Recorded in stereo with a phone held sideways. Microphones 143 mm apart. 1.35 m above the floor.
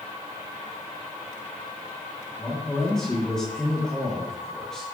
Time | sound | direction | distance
2.4 | a man speaking | 5° left (ahead or behind) | 2.5 m